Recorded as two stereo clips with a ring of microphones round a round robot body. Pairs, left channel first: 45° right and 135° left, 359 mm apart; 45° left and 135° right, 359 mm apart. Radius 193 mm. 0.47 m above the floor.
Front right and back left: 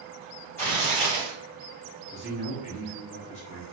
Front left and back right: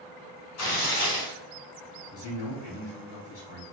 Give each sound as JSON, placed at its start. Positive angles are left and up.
{"t": 0.6, "sound": "tearing paper", "azimuth_deg": 35, "distance_m": 1.7}
{"t": 2.1, "sound": "a man speaking", "azimuth_deg": 15, "distance_m": 1.6}